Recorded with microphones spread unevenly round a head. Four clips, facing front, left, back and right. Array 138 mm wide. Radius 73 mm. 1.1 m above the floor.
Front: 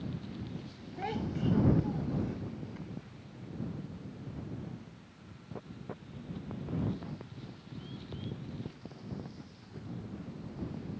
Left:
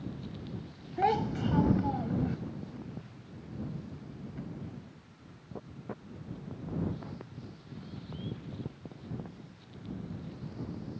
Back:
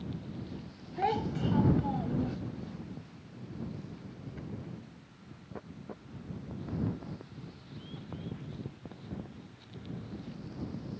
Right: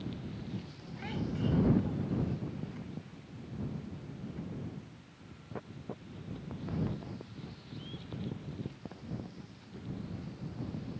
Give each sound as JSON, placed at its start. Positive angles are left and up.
{"t": 1.0, "sound": "a child speaking", "azimuth_deg": 115}